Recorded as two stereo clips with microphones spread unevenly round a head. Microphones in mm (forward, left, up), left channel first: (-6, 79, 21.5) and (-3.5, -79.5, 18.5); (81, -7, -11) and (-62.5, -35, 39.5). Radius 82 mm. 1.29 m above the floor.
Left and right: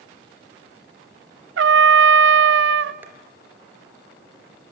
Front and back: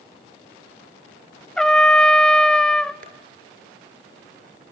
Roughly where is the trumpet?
Right.